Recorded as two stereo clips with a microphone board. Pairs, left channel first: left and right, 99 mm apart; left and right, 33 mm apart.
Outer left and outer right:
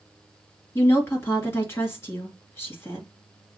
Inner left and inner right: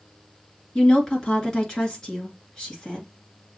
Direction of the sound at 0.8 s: 25° left (ahead or behind).